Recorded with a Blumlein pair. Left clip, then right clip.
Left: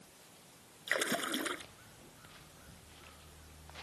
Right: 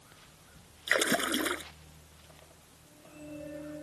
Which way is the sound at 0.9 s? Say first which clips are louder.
Right 6 dB; 20° right.